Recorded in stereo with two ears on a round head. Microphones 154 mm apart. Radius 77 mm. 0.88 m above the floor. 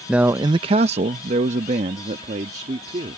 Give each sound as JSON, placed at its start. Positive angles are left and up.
{"t": 0.1, "sound": "a man speaking", "side_deg": -5}